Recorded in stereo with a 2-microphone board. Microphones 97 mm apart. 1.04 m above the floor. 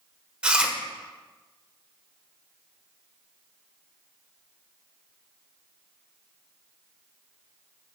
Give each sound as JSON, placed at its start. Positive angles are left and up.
{"t": 0.4, "sound": "chewing", "side_deg": -10, "distance_m": 1.0}